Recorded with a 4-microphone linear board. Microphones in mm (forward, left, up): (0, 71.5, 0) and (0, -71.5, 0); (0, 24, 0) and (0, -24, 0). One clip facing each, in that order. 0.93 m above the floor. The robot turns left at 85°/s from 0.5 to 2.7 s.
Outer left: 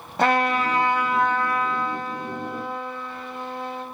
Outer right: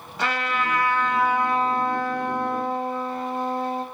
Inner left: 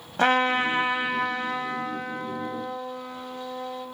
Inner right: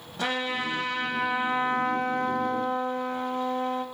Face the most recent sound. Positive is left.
turn(degrees=-130)